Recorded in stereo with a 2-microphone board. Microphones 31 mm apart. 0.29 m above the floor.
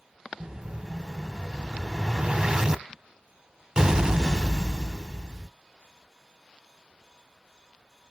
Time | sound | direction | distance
0.4 | an explosion | 25° right (ahead or behind) | 0.6 m